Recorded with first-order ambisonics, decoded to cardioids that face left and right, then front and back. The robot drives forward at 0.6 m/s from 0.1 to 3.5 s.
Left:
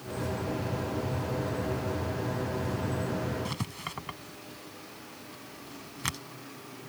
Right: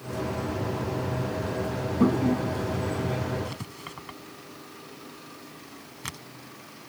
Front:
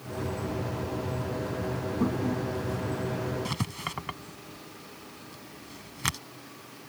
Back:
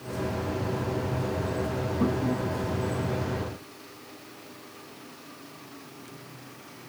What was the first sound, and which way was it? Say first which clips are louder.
A toilet flushing: right 8 dB, back 2 dB; 95° right.